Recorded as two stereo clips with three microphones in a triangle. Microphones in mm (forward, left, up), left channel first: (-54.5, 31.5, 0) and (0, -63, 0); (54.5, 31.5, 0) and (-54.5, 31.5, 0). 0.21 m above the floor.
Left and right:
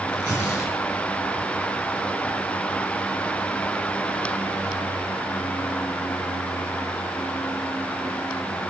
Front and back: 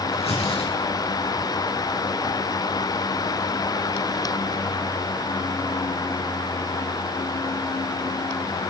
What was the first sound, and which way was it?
Tearing paper, 15° right.